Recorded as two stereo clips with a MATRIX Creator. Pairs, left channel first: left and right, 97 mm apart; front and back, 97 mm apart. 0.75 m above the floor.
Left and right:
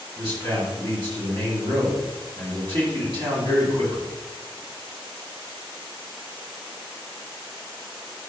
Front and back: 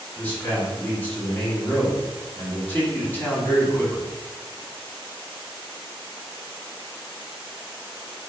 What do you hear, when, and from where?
0.1 s a man speaking: 70° right, 1.8 m